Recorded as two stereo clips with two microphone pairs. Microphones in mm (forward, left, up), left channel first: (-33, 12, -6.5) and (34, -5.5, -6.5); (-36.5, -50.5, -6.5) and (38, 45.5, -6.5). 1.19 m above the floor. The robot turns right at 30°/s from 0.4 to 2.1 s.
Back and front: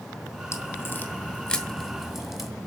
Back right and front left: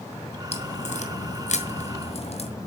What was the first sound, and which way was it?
A crack, 150° right.